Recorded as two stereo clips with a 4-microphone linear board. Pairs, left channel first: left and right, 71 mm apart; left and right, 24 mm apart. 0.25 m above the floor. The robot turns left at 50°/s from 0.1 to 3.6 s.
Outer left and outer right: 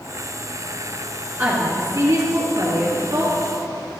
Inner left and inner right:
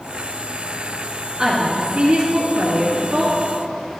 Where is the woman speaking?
20° right, 2.5 m; by 3.3 s 120° right, 2.5 m.